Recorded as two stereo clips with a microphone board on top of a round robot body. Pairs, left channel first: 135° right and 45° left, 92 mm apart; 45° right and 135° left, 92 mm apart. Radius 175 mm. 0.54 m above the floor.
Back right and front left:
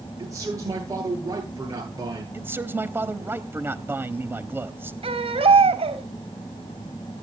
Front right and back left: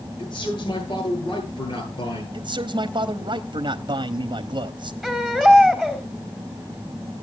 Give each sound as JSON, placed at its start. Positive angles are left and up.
{"t": 0.2, "sound": "a man speaking", "azimuth_deg": -10, "distance_m": 10.0}
{"t": 2.3, "sound": "a man speaking", "azimuth_deg": 105, "distance_m": 1.3}
{"t": 5.0, "sound": "a baby crying", "azimuth_deg": 40, "distance_m": 3.5}